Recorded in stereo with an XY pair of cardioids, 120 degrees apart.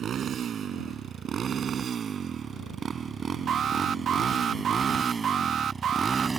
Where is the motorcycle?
50° right; by 6.4 s 25° right.